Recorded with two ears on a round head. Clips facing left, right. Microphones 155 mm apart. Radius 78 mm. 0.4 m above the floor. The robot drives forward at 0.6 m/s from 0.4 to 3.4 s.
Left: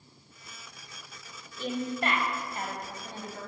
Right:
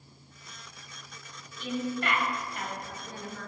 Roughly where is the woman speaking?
Left.